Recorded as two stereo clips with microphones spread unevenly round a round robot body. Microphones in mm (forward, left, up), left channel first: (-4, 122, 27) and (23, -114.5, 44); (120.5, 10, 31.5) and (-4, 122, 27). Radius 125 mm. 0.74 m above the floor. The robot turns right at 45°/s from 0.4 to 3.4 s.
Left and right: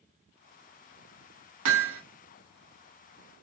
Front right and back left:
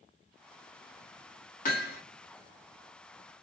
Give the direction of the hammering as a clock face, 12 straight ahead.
3 o'clock.